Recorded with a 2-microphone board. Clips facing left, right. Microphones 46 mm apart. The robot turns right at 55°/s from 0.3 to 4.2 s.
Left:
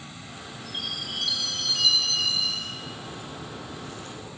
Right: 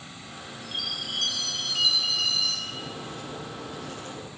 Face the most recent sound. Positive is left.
turn(degrees=-35)